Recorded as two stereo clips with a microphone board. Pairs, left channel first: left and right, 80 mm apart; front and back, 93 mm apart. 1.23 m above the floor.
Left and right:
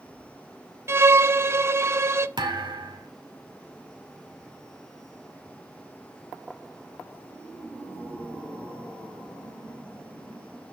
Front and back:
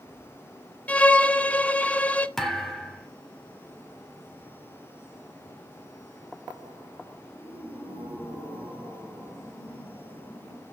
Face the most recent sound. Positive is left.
turn(degrees=-85)